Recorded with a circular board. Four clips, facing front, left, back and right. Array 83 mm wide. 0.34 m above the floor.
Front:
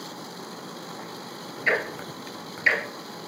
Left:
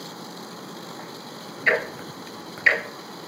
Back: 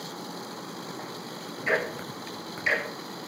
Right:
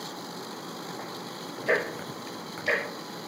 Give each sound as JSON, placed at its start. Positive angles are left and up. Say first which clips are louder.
{"t": 1.7, "sound": "ticking", "louder": "left 3 dB, front 1 dB", "azimuth_deg": 70, "distance_m": 3.0}